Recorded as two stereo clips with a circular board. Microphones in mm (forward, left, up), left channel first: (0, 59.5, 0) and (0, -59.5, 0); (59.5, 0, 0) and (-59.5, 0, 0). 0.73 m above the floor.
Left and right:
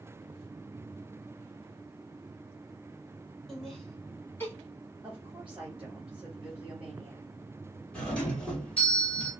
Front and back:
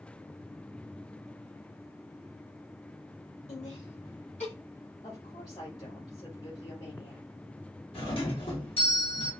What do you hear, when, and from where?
3.5 s laughter: straight ahead, 2 m; by 4.5 s 20° left, 1.6 m
5.0 s a woman speaking: 15° right, 1.9 m
7.9 s a doorbell: 10° left, 1.6 m